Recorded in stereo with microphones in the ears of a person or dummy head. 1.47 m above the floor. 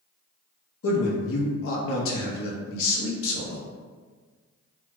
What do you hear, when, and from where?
0.8 s a man speaking: 65° left (ahead or behind), 0.8 m